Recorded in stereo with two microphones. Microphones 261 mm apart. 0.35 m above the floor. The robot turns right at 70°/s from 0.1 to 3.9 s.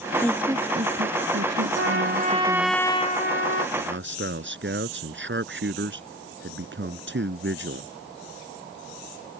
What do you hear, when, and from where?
0.2 s a woman speaking: 170° left; by 2.8 s 10° right
1.8 s a trumpet: 65° right; by 3.7 s 70° left
3.8 s a man speaking: 35° right (ahead or behind); by 7.9 s 45° right (ahead or behind)